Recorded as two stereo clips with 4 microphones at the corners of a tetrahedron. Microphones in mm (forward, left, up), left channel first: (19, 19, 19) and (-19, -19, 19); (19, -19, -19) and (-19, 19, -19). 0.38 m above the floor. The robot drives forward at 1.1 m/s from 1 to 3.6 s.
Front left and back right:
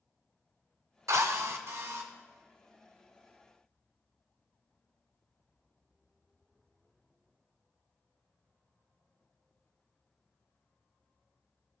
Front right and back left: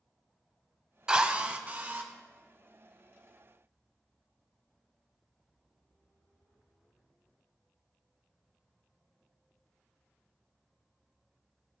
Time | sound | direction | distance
1.1 | a drill | 150° right | 0.7 m